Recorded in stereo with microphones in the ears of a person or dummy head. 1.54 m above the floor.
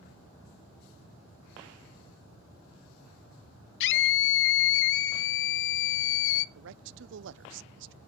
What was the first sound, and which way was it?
A scream, 70° left (ahead or behind).